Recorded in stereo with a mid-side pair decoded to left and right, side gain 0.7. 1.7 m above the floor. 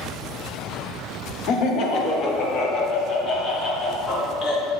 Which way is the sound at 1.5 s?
55° left.